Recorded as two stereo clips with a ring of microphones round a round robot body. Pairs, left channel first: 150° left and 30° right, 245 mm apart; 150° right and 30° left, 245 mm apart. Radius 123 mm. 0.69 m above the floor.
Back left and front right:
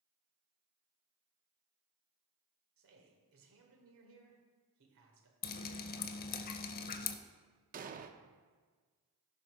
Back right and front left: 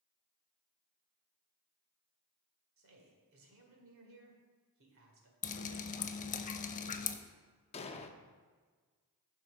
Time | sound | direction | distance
2.8 | a man speaking | straight ahead | 2 m
5.4 | dripping | 170° left | 0.5 m
7.7 | an explosion | 85° right | 0.6 m